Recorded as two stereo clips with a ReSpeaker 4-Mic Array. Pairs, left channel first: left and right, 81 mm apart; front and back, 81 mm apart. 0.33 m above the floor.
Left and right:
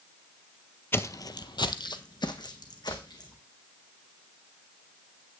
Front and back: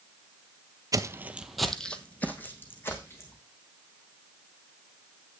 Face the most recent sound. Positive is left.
turn(degrees=60)